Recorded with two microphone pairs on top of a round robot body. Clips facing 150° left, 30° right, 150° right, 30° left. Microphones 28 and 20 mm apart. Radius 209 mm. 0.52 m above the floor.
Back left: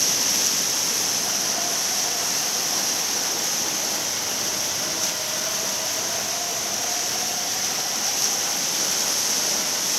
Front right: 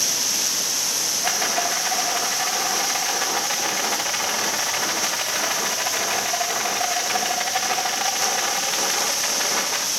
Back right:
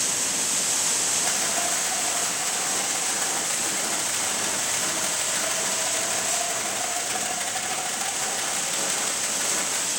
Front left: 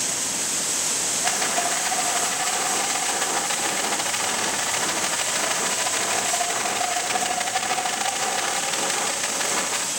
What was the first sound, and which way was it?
A rattle, 35° right.